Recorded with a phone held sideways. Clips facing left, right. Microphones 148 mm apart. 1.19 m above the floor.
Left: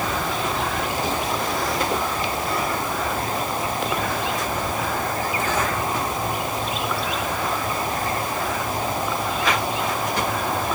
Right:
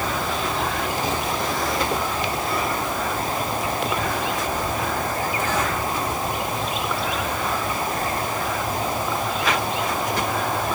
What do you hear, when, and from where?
Only background noise.